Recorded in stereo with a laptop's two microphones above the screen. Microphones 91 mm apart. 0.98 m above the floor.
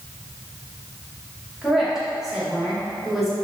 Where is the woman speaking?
Centre (ahead or behind), 1.7 m.